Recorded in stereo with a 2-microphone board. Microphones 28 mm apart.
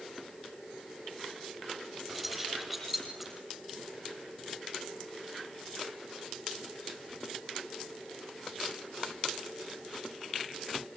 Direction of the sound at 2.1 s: 10° right (ahead or behind).